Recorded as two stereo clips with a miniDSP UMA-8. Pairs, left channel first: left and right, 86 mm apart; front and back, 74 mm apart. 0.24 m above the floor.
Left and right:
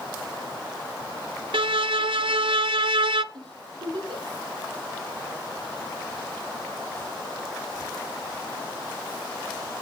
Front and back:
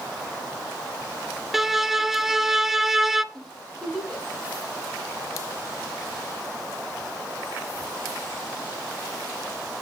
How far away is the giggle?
About 7.5 m.